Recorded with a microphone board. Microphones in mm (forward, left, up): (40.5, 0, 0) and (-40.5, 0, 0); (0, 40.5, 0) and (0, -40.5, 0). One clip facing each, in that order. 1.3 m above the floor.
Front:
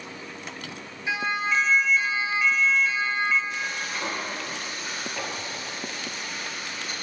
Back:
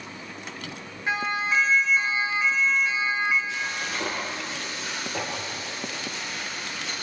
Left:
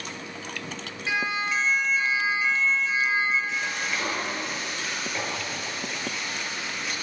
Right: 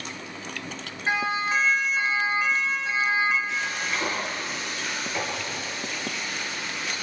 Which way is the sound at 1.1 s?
140° right.